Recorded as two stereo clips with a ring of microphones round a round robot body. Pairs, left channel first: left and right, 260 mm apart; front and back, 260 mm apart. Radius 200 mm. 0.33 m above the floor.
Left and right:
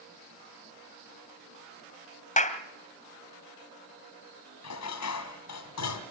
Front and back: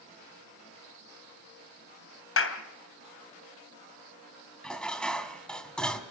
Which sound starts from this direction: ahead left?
A clap, at 2.4 s.